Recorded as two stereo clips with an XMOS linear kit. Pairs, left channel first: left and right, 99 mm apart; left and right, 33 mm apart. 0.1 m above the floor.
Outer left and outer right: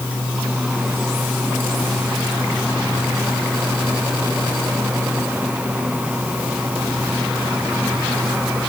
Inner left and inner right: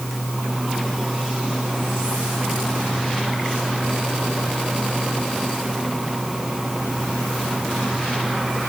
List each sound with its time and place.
Only background noise.